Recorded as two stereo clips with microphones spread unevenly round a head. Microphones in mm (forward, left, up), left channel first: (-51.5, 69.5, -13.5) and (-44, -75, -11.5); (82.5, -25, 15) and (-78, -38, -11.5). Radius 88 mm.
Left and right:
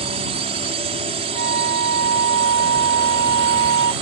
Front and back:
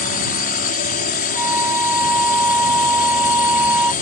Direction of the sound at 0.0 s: 30° right.